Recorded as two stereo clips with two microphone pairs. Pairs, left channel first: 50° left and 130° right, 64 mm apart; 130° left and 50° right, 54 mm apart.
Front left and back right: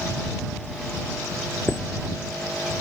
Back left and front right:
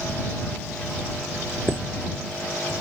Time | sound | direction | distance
1.7 | a chime | 5° left | ?